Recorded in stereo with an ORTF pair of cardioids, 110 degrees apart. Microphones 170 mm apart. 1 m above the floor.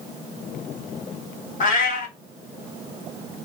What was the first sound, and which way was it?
A cat meowing, 55° left.